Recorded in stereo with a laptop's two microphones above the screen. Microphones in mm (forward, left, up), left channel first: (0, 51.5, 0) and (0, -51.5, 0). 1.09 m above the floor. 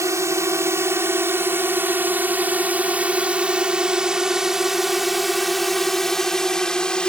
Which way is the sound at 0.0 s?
30° right (ahead or behind).